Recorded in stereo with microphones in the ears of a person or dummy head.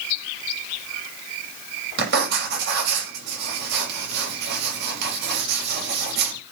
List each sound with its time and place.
2.0 s writing: 60° right (ahead or behind), 5.5 m